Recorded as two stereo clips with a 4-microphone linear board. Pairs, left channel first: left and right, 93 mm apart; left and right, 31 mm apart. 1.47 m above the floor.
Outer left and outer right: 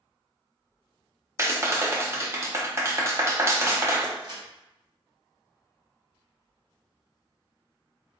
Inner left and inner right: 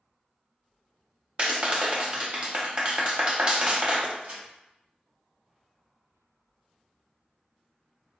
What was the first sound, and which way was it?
A clap, 30° right (ahead or behind).